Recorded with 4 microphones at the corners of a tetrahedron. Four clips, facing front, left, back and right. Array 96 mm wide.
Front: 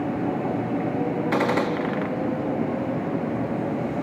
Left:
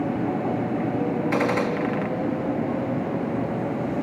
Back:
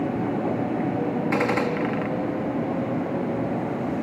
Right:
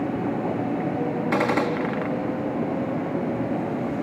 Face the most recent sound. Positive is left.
turn(degrees=-55)